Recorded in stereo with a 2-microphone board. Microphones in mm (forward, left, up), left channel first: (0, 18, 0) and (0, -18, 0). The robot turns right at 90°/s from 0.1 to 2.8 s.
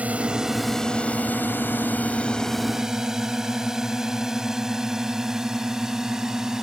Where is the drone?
45° right (ahead or behind); by 6.6 s 15° right (ahead or behind).